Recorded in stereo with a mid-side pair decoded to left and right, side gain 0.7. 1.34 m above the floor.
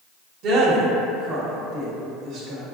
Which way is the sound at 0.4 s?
50° right.